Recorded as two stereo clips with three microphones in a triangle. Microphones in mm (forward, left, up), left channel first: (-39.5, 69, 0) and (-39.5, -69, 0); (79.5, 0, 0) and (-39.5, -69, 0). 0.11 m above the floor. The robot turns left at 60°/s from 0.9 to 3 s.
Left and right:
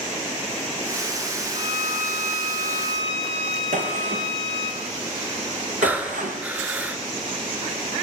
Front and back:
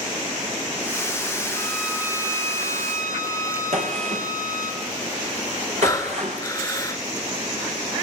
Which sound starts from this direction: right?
A gunshot, at 3.7 s.